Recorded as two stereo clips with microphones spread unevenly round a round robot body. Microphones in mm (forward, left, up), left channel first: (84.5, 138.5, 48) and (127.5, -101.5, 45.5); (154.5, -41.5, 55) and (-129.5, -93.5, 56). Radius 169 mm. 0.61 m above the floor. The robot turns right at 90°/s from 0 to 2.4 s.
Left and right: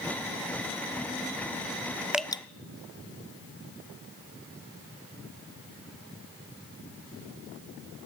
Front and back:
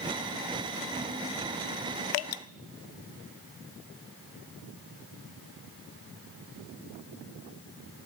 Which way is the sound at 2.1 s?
5° left.